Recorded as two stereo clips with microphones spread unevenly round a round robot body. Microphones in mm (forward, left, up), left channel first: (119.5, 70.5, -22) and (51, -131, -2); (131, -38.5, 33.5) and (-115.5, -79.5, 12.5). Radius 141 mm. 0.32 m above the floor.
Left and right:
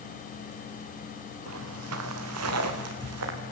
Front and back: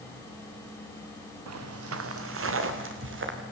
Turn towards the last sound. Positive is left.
turn(degrees=-130)